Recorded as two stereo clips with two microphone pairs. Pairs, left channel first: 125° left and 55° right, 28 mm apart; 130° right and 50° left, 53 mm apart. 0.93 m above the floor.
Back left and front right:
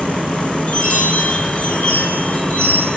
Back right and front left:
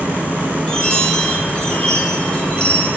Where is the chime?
160° left, 5.5 m.